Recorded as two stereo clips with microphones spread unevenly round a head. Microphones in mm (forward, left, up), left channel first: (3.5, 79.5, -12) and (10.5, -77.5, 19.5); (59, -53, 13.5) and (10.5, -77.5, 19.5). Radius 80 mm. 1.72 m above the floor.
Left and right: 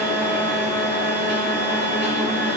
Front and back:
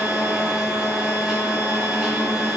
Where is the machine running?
75° right, 4 m.